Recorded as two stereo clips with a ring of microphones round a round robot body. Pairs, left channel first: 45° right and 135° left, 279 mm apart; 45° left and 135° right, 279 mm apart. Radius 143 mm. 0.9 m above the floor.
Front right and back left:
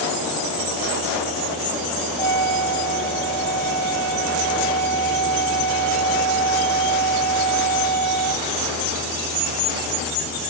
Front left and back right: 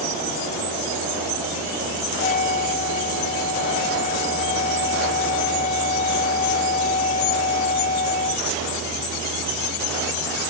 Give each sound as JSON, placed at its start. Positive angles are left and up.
{"t": 2.2, "sound": "a trumpet", "azimuth_deg": 110}